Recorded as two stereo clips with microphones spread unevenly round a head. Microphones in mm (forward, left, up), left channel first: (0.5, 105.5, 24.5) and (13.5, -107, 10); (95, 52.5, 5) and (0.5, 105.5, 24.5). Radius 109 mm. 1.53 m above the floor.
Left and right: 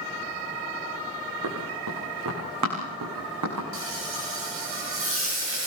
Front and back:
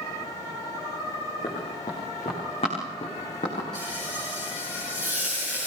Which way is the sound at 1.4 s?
100° right.